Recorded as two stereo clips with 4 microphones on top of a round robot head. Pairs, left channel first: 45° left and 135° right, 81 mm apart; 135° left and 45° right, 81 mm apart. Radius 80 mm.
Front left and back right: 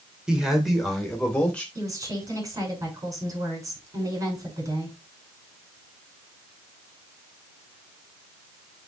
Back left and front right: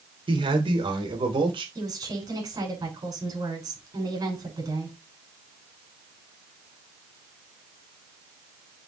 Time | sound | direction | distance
0.3 | a man speaking | 55° right | 2.5 m
1.8 | a woman speaking | 85° right | 6 m